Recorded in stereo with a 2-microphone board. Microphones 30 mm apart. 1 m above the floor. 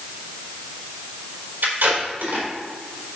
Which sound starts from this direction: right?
Tape being pulled, at 1.6 s.